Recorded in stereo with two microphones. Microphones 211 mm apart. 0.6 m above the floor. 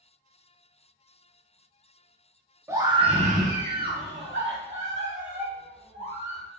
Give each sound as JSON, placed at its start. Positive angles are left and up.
{"t": 2.7, "sound": "a scream", "side_deg": -10, "distance_m": 0.7}